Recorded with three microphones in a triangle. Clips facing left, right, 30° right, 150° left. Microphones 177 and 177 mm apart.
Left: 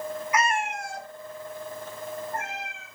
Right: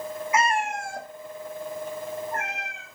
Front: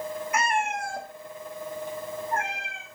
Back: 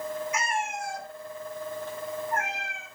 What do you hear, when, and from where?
0.3 s a cat meowing: 30° right, 1.2 m; by 2.9 s 90° right, 3.5 m